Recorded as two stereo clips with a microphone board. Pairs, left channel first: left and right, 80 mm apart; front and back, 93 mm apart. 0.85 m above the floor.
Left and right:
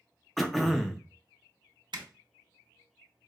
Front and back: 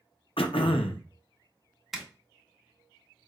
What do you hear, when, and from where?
0.4 s throat clearing: straight ahead, 0.6 m
1.9 s a zipper: 90° right, 0.7 m